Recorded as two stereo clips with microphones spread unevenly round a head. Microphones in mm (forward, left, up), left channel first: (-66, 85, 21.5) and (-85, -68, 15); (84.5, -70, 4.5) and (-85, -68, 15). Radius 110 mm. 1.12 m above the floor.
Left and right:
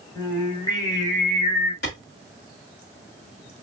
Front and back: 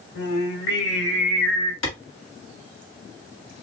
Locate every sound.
0.1 s singing: 10° left, 2.5 m
1.8 s a clap: 35° left, 1.4 m